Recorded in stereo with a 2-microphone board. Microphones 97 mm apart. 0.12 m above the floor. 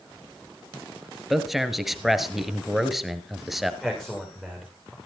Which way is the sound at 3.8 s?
5° left (ahead or behind).